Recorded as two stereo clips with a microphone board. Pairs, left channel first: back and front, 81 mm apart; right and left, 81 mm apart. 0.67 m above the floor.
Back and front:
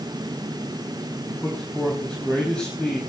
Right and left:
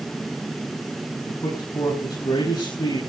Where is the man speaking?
105° right, 5 m.